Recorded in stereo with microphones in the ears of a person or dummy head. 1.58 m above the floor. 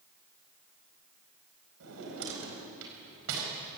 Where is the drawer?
80° right, 4.5 m.